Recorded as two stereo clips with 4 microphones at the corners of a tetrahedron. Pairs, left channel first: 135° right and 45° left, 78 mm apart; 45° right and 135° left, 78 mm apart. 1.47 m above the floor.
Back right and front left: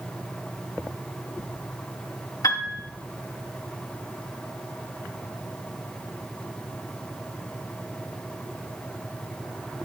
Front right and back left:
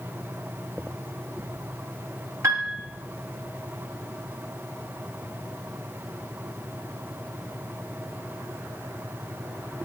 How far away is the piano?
About 3 m.